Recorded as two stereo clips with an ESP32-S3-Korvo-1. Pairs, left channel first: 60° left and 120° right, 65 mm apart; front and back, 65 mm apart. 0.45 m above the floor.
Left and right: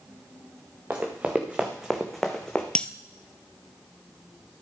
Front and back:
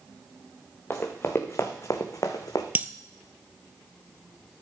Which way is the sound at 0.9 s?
60° right.